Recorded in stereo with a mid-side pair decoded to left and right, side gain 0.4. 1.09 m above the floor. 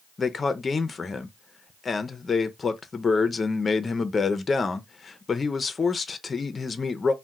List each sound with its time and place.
0.2 s a man speaking: 40° left, 0.5 m